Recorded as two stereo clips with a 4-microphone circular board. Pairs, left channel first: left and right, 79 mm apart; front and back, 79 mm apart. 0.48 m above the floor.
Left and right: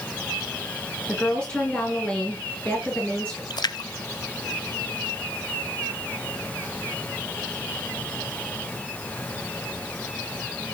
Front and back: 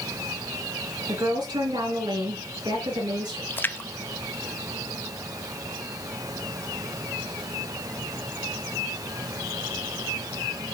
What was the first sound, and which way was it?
A woman speaking, 165° left.